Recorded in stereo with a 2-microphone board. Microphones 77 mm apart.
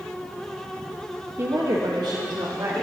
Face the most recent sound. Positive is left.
turn(degrees=-50)  # may be behind; listen again after turning